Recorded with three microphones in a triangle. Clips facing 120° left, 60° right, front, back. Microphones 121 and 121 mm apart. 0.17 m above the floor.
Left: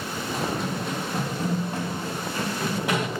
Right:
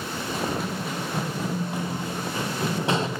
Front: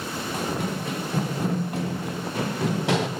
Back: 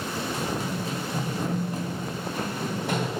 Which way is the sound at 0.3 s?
30° left.